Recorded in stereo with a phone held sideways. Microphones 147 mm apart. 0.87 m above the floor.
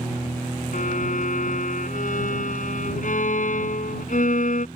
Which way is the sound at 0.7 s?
65° left (ahead or behind).